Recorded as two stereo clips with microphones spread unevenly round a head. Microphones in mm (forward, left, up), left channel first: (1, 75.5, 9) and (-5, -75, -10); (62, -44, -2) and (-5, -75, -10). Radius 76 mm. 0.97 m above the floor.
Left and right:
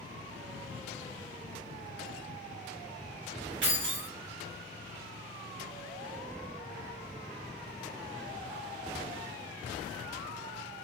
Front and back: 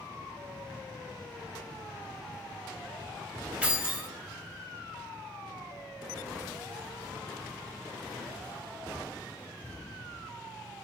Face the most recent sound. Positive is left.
turn(degrees=-75)